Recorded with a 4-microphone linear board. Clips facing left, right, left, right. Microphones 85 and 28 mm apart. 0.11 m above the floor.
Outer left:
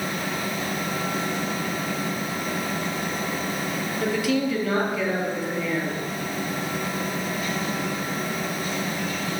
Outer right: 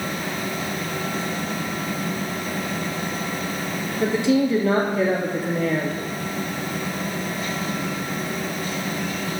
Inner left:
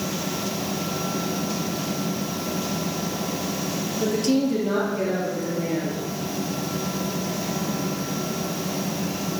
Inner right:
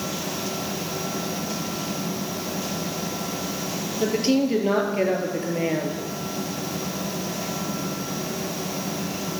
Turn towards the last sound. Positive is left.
turn(degrees=-55)  # may be behind; listen again after turning